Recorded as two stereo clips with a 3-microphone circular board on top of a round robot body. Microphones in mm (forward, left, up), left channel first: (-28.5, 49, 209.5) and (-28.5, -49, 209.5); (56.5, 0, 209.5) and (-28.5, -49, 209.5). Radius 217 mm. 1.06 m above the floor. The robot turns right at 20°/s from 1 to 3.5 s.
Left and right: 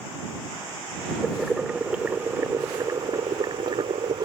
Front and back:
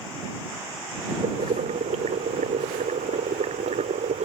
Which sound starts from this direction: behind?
Boiling, at 1.2 s.